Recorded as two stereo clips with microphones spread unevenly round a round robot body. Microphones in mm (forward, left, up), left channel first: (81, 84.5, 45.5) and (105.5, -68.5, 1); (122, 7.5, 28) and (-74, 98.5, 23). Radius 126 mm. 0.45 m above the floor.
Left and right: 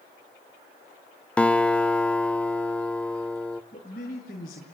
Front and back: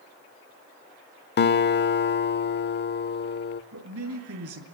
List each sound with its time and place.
1.4 s a guitar: 10° left, 0.8 m
3.7 s a man speaking: 155° left, 6 m